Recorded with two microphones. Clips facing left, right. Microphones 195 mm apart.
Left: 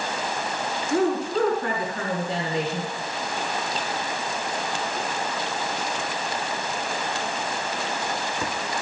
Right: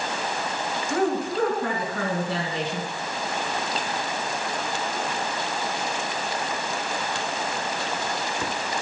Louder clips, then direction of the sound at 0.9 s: Left 2 dB; 65° right (ahead or behind).